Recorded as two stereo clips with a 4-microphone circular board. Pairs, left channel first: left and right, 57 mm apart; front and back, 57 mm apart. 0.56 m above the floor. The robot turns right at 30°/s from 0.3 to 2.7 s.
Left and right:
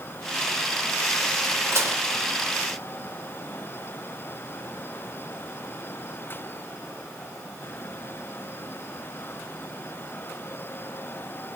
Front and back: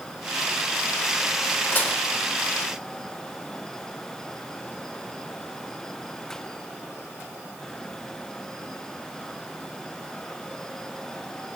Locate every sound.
1.7 s dishes clattering: 55° right, 1.2 m; by 2.0 s 50° right, 1.2 m